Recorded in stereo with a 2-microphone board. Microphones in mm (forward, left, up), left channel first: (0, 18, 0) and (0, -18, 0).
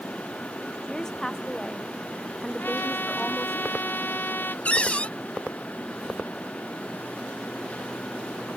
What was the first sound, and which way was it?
A woman speaking, 15° left (ahead or behind).